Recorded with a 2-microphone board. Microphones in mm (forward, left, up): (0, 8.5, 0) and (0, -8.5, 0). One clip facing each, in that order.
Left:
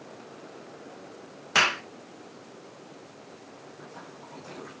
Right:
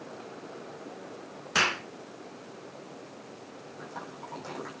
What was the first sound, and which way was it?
A clap, 20° left (ahead or behind).